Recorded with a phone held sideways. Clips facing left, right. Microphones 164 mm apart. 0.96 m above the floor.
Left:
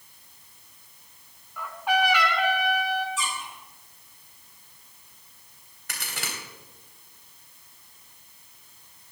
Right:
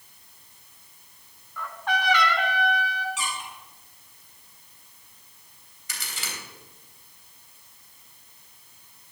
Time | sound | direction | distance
1.6 | a trumpet | 10° left (ahead or behind) | 1.7 m
3.2 | a squeak | 80° right | 5.5 m
5.9 | a crack | 65° left (ahead or behind) | 3 m